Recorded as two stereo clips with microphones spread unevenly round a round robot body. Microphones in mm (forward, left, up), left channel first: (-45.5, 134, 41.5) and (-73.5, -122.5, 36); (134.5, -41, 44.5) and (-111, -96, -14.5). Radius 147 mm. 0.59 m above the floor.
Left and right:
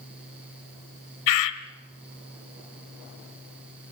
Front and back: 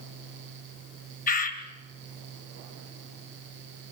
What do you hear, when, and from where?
1.3 s a bird: 80° left, 1.5 m